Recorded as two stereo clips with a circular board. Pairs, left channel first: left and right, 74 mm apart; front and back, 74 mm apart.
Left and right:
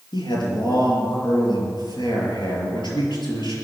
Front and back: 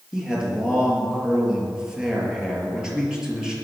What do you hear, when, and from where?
0.1 s a man speaking: 100° left, 6 m